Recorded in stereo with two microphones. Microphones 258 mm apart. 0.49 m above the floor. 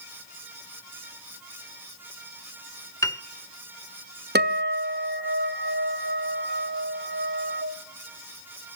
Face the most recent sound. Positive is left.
turn(degrees=-40)  # may be behind; listen again after turning